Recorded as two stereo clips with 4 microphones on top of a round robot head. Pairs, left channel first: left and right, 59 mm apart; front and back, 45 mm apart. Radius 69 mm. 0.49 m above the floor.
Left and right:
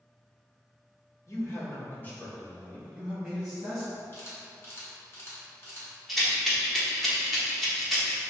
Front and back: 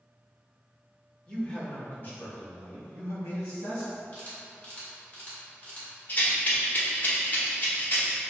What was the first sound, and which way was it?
A man speaking, 70° left.